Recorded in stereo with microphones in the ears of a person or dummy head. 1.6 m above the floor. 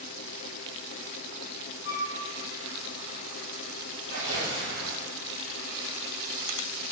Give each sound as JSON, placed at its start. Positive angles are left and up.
{"t": 1.9, "sound": "a flute", "side_deg": 60, "distance_m": 1.0}
{"t": 4.1, "sound": "tearing paper", "side_deg": -60, "distance_m": 1.7}